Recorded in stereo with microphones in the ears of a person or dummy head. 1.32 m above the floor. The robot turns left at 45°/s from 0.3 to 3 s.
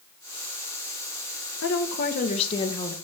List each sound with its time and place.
1.6 s a woman speaking: 75° left, 1.9 m; by 3.0 s 15° left, 1.9 m